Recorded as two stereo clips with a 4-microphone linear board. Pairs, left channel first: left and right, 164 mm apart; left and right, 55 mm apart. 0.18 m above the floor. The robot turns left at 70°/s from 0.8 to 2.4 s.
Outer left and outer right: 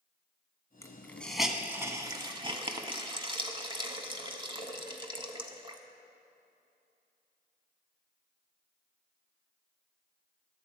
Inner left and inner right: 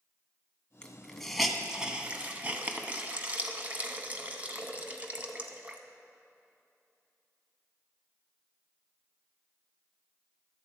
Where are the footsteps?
I don't hear footsteps.